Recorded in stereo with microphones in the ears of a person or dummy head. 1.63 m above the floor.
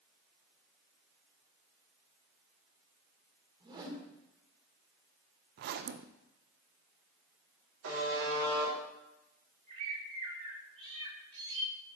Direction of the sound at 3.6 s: 35° right (ahead or behind).